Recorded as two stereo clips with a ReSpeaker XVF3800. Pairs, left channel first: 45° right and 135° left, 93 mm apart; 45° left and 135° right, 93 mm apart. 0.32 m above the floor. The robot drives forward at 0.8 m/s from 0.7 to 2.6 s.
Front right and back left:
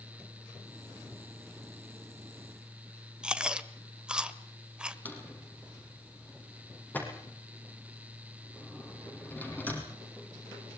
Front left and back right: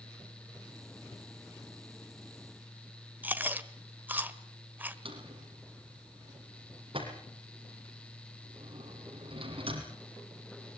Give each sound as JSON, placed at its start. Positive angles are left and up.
{"t": 3.2, "sound": "chewing", "azimuth_deg": -165, "distance_m": 1.3}
{"t": 5.0, "sound": "a drawer", "azimuth_deg": -115, "distance_m": 5.0}